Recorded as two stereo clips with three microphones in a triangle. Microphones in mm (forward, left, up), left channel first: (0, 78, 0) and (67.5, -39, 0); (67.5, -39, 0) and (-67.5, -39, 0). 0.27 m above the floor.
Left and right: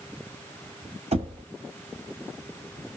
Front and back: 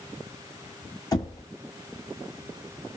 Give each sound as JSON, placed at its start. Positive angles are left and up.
{"t": 1.1, "sound": "knocking", "azimuth_deg": -55, "distance_m": 1.6}